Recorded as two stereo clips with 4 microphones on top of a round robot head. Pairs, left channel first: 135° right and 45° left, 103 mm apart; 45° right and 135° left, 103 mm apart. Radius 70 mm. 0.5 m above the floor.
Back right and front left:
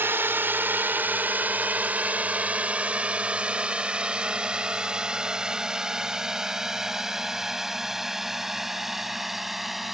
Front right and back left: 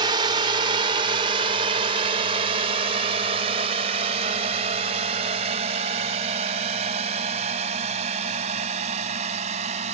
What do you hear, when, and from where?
0.0 s a drone: 110° left; by 9.9 s 135° left